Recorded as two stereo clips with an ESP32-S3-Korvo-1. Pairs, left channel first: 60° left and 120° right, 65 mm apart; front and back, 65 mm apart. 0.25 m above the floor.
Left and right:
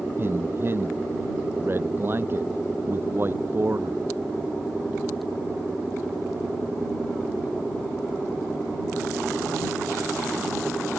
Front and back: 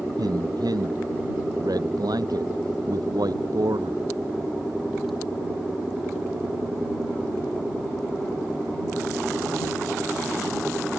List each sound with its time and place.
0.2 s a man speaking: 170° right